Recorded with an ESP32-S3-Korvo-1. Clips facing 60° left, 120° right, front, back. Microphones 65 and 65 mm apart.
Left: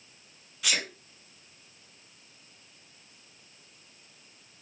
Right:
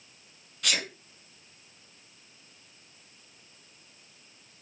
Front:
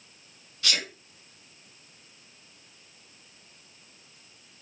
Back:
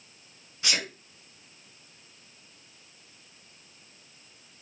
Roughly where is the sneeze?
Behind left.